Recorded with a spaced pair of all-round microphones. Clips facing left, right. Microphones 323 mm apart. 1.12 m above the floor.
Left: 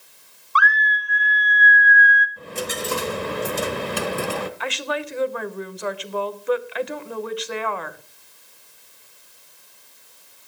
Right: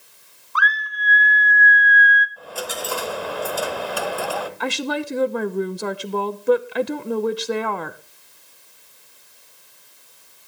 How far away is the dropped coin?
About 1.0 m.